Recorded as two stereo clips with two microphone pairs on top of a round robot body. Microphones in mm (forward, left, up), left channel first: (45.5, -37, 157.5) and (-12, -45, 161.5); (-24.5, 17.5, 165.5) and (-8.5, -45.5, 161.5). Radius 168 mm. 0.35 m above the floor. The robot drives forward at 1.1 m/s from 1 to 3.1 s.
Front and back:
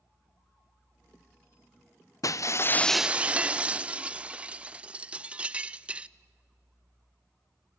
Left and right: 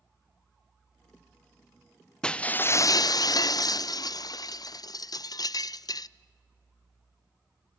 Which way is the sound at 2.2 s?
25° left.